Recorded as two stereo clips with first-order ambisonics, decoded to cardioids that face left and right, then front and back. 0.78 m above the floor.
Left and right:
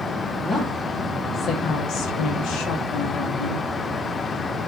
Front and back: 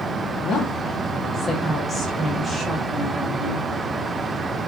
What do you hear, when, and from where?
0.4 s a woman speaking: 5° left, 1.1 m; by 3.7 s 115° left, 1.9 m